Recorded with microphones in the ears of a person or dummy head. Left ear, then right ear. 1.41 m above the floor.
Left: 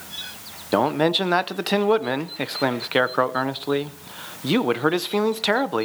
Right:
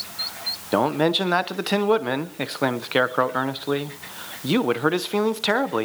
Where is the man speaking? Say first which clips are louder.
Left 1 dB; 5° left (ahead or behind), 0.7 m.